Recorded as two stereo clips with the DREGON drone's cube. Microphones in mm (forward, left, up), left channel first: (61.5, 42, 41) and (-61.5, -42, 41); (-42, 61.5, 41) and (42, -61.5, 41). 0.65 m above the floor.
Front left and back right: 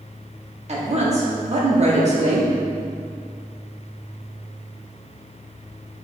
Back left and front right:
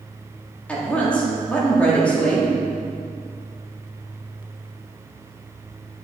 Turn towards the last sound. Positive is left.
turn(degrees=-160)